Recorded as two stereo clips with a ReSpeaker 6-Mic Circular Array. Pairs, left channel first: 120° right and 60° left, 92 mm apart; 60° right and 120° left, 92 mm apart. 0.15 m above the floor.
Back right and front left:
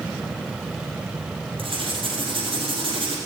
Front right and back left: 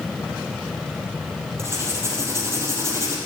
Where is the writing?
60° left, 3.5 m.